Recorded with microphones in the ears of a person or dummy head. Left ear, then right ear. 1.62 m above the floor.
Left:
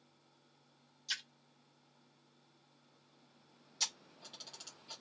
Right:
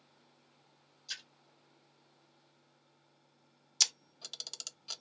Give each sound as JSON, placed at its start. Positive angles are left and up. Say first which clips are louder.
{"t": 1.1, "sound": "a splash", "louder": "left 3 dB", "side_deg": 10, "distance_m": 1.6}
{"t": 3.8, "sound": "a camera shutter", "louder": "right 8 dB", "side_deg": -65, "distance_m": 0.7}